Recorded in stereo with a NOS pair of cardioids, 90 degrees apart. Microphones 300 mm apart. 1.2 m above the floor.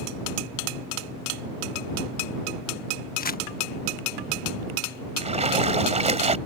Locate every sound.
3.2 s crumpling: 30° left
5.2 s a splash: 20° right